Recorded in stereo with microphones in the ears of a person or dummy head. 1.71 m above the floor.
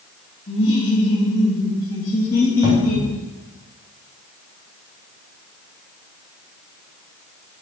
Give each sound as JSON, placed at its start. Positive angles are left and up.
{"t": 0.5, "sound": "laughter", "side_deg": 40, "distance_m": 3.0}
{"t": 2.6, "sound": "a cupboard door", "side_deg": -20, "distance_m": 1.7}